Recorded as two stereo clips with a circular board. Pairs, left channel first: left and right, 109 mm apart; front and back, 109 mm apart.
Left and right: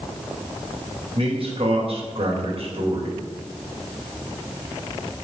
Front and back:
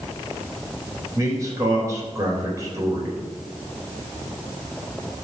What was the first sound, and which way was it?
A man speaking, 120° right.